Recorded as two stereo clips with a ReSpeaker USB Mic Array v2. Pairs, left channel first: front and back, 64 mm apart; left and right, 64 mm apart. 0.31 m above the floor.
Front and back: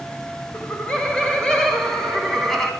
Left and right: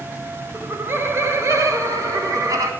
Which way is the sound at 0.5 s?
60° right.